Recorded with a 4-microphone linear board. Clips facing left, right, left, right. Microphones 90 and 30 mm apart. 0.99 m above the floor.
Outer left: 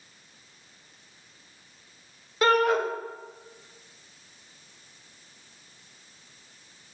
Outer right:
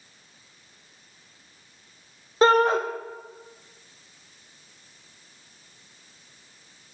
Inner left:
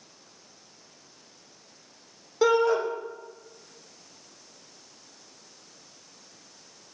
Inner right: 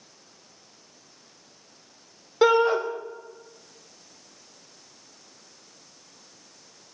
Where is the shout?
30° right (ahead or behind), 0.6 m.